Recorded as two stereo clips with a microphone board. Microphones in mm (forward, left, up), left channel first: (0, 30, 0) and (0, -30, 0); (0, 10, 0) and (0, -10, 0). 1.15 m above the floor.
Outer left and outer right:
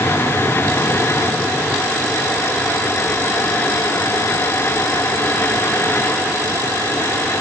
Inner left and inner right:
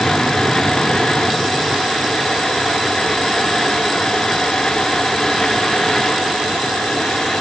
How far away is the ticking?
I don't hear ticking.